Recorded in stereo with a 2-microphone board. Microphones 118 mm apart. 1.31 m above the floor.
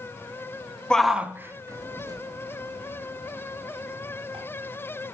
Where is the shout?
5° left (ahead or behind), 0.7 m; by 4.4 s 45° right (ahead or behind), 4 m.